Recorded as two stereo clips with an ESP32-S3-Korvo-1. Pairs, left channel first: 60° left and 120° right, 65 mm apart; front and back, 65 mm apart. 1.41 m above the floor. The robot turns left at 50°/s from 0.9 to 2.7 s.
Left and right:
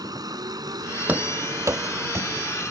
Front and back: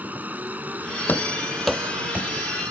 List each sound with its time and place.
0.0 s a vehicle: 115° right; by 2.7 s 155° left
1.1 s running footsteps: 60° right; by 2.3 s 125° right